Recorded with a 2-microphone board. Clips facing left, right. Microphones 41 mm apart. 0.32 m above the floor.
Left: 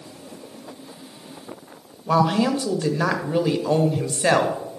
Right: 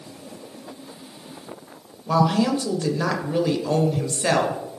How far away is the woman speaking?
About 1.0 m.